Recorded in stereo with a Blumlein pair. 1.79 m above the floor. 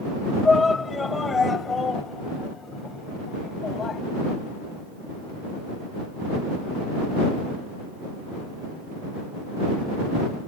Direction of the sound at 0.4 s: 10° left.